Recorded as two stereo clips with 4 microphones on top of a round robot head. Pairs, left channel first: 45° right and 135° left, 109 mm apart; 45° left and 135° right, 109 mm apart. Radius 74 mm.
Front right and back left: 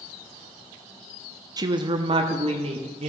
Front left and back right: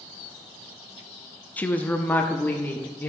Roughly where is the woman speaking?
Left.